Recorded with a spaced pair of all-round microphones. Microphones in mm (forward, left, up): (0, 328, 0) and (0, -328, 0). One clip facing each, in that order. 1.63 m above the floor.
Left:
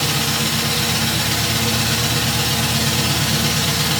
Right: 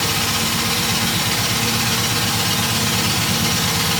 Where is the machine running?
70° left (ahead or behind), 1.9 m.